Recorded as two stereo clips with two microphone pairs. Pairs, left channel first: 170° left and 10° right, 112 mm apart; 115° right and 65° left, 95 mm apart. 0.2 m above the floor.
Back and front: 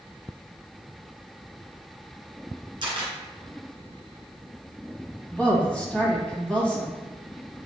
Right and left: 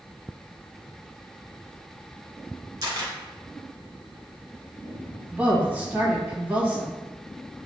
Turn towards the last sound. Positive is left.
turn(degrees=110)